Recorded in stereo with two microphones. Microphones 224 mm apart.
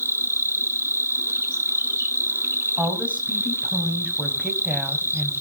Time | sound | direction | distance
0.0 | an insect | 10° right (ahead or behind) | 0.8 m
2.8 | a woman speaking | 5° right (ahead or behind) | 2.5 m